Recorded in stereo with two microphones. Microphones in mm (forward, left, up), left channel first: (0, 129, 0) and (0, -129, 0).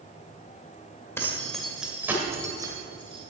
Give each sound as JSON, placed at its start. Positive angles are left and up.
{"t": 1.2, "sound": "keys jangling", "side_deg": 10, "distance_m": 1.5}